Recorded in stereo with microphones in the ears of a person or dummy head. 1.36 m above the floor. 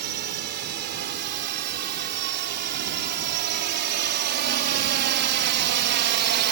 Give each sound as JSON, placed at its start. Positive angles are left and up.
{"t": 0.0, "sound": "a drone", "side_deg": -55}